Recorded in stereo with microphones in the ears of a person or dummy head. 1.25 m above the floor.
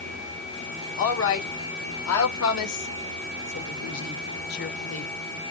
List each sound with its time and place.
1.0 s a woman speaking: 65° left (ahead or behind), 3 m; by 5.1 s 35° left (ahead or behind), 1.2 m